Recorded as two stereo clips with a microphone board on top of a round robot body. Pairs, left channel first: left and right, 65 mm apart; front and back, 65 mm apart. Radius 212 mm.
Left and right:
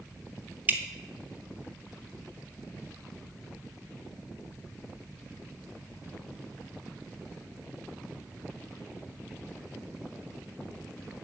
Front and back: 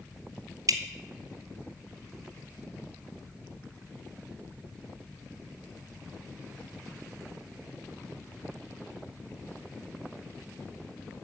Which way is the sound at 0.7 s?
155° right.